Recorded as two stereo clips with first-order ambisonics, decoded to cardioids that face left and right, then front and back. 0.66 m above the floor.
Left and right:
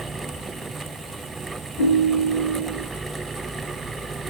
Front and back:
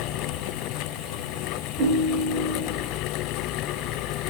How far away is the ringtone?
About 1.0 m.